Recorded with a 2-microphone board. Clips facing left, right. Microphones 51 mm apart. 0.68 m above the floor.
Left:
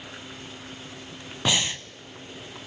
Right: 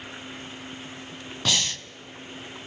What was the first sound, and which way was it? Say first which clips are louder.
Breathing: left 2 dB; 20° left (ahead or behind).